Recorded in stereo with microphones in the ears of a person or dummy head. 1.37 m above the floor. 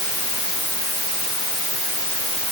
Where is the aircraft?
I don't hear an aircraft.